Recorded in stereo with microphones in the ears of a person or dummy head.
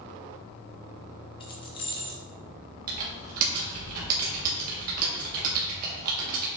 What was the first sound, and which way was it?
Keys jangling, 25° left (ahead or behind).